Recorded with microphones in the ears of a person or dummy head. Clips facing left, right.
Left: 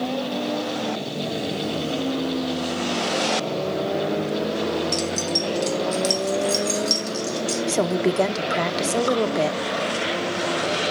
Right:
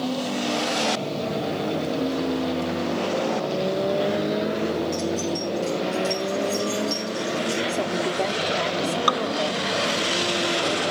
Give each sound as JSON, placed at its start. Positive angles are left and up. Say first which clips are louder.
{"t": 4.9, "sound": "keys jangling", "louder": "even", "side_deg": 55, "distance_m": 1.2}
{"t": 7.7, "sound": "a woman speaking", "louder": "left 4 dB", "side_deg": 55, "distance_m": 1.0}
{"t": 9.1, "sound": "dripping", "louder": "left 4 dB", "side_deg": -80, "distance_m": 1.1}